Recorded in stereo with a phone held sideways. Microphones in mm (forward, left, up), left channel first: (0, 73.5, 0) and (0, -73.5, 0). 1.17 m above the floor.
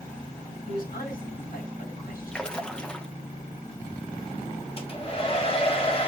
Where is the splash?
5° left (ahead or behind), 1.0 m.